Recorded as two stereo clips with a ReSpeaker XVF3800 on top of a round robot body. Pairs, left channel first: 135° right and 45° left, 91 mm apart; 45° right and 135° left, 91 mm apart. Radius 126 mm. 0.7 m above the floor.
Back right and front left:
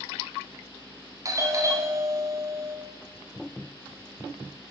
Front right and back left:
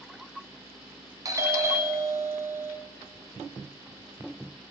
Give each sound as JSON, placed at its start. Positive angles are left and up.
{"t": 1.2, "sound": "a doorbell", "azimuth_deg": 90, "distance_m": 2.5}